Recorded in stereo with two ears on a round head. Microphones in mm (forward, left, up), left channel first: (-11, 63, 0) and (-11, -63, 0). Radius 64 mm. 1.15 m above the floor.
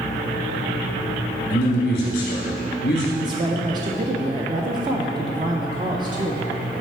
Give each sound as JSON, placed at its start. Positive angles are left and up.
{"t": 1.5, "sound": "a man speaking", "side_deg": 60, "distance_m": 1.6}
{"t": 3.2, "sound": "a woman speaking", "side_deg": -30, "distance_m": 0.5}